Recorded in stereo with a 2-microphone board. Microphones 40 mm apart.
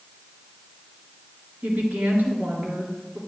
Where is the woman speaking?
55° right (ahead or behind), 2.5 m.